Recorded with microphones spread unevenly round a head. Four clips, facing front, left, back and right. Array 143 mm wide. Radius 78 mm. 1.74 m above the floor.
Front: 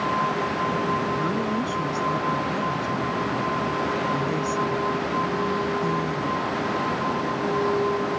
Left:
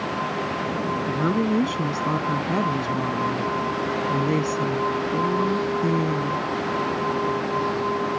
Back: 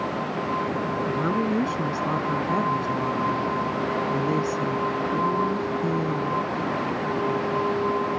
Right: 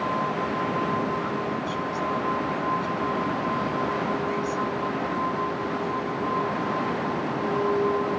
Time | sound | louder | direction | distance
1.1 | a woman speaking | left 5 dB, back 1 dB | 105° left | ?